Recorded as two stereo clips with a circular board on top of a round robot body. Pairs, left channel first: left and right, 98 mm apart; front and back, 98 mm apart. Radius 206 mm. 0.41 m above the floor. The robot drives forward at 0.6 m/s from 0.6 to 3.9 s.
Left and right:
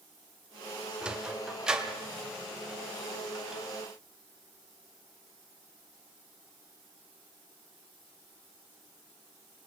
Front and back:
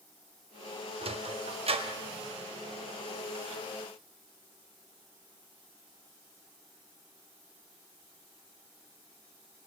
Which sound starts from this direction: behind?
A sliding door, at 1.0 s.